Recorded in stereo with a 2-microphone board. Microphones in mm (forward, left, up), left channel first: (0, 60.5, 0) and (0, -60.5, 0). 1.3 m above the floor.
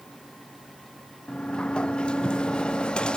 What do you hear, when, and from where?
1.3 s a sliding door: 10° left (ahead or behind), 0.6 m